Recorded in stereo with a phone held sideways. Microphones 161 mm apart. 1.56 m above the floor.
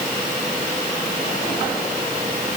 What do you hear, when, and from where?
Only background noise.